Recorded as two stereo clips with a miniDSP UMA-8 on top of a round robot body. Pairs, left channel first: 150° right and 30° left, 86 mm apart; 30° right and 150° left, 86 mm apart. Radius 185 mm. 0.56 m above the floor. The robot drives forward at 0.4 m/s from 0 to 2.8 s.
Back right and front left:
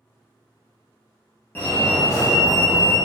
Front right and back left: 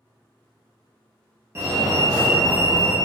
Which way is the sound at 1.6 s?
170° left.